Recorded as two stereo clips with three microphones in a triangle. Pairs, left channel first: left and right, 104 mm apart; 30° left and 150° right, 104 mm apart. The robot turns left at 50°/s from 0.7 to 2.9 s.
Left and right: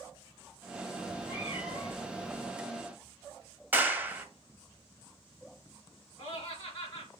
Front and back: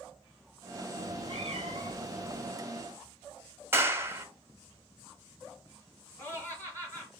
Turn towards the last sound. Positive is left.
turn(degrees=100)